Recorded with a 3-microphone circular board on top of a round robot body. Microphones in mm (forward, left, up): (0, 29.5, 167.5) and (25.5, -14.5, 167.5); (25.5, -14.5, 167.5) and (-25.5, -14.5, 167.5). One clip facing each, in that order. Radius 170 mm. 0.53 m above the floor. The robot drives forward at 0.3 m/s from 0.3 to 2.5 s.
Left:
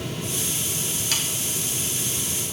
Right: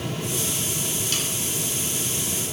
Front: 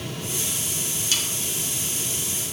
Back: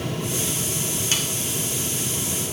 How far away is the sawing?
About 1.5 m.